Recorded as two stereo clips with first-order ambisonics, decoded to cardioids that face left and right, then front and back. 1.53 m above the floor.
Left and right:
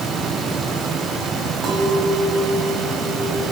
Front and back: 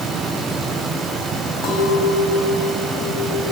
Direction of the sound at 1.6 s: 40° right.